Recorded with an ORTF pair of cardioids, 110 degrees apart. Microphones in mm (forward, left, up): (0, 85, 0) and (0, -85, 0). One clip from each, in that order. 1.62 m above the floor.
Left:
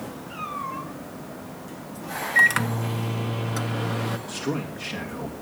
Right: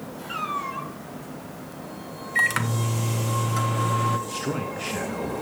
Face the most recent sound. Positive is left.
turn(degrees=-10)